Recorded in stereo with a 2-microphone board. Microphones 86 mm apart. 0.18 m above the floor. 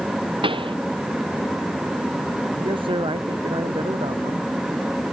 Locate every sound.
0.4 s a pop: 85° right
2.6 s a man speaking: 85° right